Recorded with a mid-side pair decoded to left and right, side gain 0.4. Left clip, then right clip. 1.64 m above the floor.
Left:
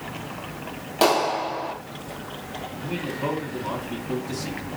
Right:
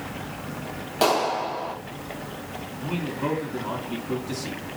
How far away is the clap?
About 1.8 m.